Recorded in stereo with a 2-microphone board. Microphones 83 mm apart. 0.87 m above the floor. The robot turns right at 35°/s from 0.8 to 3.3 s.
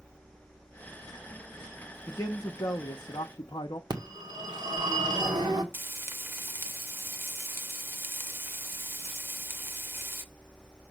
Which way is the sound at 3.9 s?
55° right (ahead or behind).